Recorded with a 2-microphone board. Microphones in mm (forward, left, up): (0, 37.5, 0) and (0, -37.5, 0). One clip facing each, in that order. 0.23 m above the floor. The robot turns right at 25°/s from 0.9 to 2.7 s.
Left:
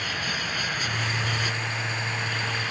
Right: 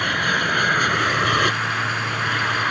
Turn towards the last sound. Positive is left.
turn(degrees=-55)  # may be behind; listen again after turning